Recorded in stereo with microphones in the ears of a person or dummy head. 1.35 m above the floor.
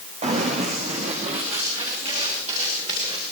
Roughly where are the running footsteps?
Right.